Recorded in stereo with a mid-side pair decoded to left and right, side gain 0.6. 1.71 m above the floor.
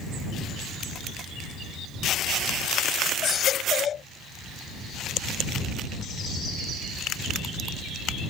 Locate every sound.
3.2 s a baby crying: 45° left